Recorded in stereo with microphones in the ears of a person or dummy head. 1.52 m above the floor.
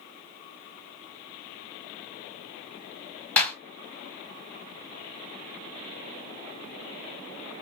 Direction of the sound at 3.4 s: 10° left (ahead or behind).